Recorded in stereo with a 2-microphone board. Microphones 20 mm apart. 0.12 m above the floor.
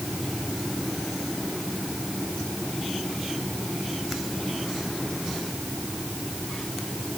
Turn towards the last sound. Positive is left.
No sound to turn to.